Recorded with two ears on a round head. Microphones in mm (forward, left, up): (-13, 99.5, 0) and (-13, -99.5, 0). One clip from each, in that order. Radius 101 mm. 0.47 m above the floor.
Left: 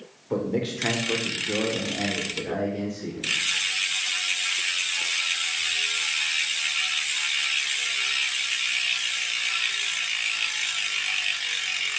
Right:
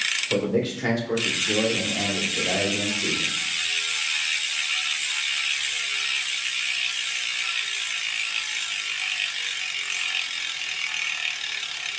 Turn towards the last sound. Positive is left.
turn(degrees=-20)  # may be behind; listen again after turning